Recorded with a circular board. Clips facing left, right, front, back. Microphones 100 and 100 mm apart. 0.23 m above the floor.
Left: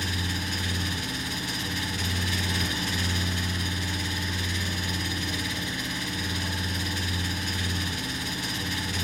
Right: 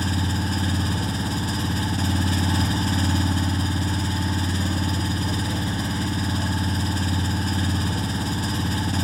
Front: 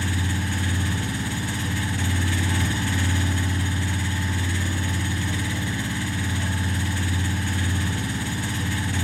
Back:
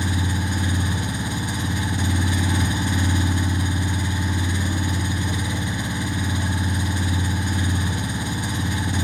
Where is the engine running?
115° right, 1.2 m.